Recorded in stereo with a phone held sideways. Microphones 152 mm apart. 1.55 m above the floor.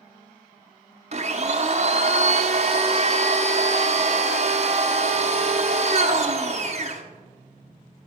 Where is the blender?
45° right (ahead or behind), 0.8 m.